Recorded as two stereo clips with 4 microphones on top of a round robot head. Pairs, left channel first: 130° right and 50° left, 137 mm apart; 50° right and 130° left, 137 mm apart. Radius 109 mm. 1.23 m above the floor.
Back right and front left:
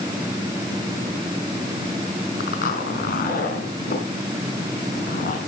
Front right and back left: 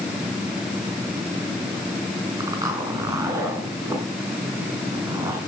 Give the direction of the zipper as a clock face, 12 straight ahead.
5 o'clock.